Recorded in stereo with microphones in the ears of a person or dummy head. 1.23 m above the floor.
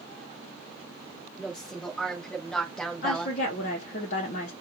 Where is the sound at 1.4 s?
5° left (ahead or behind), 1.8 m; by 3.4 s centre (ahead or behind), 0.6 m.